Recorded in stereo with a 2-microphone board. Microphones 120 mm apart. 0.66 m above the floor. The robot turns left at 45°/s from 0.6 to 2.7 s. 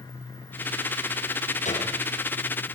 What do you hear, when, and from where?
1.6 s a gunshot: 75° left (ahead or behind), 6 m; by 1.9 s 85° left, 6 m